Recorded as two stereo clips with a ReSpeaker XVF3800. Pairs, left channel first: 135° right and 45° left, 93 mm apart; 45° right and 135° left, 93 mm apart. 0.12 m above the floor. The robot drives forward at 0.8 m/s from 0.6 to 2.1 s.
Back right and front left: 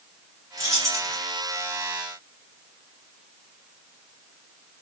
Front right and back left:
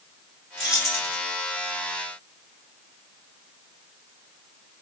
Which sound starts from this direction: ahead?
Keys jangling, at 0.6 s.